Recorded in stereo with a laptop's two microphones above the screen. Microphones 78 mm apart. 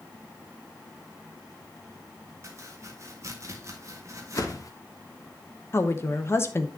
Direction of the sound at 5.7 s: 35° left (ahead or behind).